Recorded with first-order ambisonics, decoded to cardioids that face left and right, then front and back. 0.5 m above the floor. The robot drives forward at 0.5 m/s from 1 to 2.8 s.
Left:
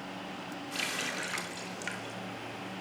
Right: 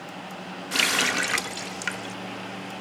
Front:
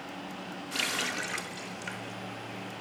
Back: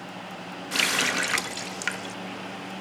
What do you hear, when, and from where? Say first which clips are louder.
0.7 s a running tap: right 12 dB, back 8 dB; 125° right, 0.6 m; by 2.1 s 155° right, 1.0 m